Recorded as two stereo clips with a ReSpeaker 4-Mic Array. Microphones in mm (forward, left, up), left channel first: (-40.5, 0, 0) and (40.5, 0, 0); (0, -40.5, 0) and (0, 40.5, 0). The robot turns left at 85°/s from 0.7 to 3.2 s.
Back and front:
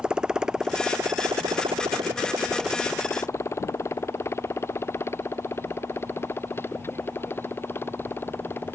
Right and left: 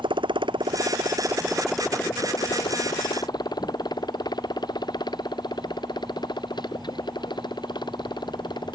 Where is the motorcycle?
80° left; by 8.8 s 115° right.